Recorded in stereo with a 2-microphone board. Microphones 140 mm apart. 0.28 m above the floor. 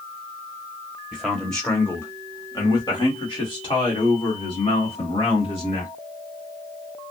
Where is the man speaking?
5° right (ahead or behind), 1.1 m; by 5.9 s 40° left (ahead or behind), 3 m.